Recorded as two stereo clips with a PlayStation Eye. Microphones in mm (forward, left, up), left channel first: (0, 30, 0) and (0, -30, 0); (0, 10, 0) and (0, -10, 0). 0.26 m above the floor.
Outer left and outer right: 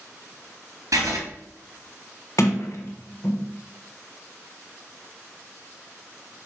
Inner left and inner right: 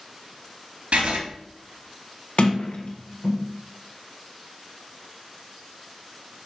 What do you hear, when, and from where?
0.9 s writing: 75° right (ahead or behind), 3 m
2.4 s a sliding door: 65° left (ahead or behind), 1.4 m